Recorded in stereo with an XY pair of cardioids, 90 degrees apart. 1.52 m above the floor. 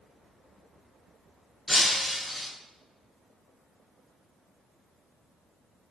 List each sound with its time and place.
1.7 s breaking glass: 15° left, 4 m